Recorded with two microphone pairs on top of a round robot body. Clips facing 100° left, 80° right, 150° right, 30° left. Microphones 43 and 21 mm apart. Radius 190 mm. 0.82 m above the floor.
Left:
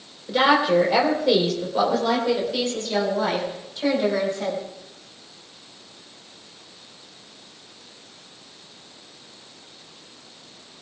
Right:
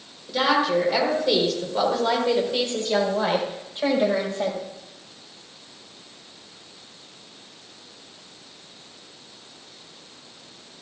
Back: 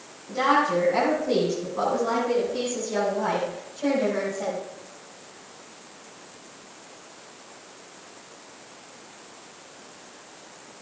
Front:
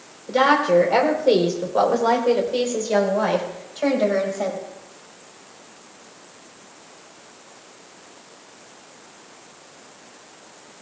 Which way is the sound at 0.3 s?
30° left.